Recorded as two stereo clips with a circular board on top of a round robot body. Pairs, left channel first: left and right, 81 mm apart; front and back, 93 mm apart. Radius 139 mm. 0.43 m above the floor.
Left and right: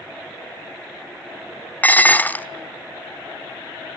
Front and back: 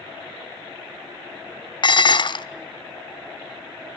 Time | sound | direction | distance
1.8 | dishes clattering | 25° left | 0.9 m